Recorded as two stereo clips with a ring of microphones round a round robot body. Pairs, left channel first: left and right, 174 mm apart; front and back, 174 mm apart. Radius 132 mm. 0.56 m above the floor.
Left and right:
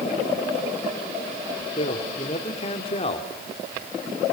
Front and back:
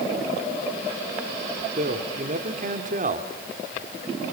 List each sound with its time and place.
1.8 s a man speaking: 145° left, 1.7 m